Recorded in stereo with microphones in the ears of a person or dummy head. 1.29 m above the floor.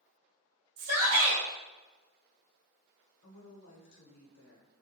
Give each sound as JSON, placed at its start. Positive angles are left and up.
{"t": 0.8, "sound": "a shout", "side_deg": -65, "distance_m": 0.9}
{"t": 3.2, "sound": "a woman speaking", "side_deg": 60, "distance_m": 0.9}